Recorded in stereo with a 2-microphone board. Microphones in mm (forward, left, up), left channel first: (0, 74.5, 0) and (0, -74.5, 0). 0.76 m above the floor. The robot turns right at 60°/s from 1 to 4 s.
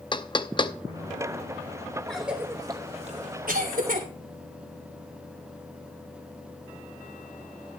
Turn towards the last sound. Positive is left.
turn(degrees=-65)  # may be behind; listen again after turning